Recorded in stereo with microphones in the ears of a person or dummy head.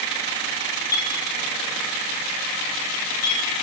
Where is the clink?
20° left (ahead or behind), 7 m.